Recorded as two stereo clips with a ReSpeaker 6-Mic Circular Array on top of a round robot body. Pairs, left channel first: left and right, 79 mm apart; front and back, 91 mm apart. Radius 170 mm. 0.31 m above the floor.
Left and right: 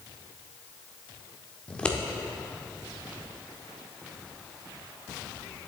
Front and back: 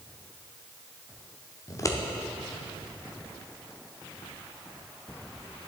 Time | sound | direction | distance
1.7 | scissors | 20° left | 1.5 m